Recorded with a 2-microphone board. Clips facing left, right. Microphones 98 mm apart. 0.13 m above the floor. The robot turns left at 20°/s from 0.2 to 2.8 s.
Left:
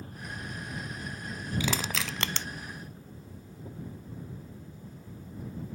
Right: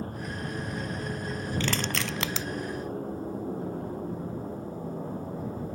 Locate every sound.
0.0 s an aircraft: 55° right; by 5.8 s 105° right
1.6 s crushing: 10° left (ahead or behind); by 2.5 s 5° right (ahead or behind)